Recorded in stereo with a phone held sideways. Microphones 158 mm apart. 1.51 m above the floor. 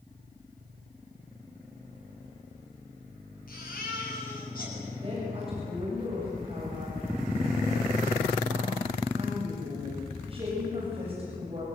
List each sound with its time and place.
3.5 s a baby crying: 65° left (ahead or behind), 8 m
5.0 s a woman speaking: 35° right (ahead or behind), 7.5 m